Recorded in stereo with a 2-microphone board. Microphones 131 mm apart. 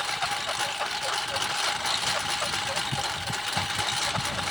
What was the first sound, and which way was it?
A lawn mower, centre (ahead or behind).